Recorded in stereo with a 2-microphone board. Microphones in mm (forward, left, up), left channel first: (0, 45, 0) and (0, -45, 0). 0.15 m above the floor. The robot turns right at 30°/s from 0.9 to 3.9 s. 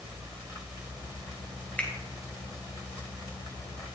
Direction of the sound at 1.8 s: 15° left (ahead or behind).